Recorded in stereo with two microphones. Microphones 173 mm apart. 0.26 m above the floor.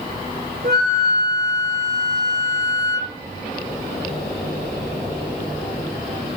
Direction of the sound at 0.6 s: 60° right (ahead or behind).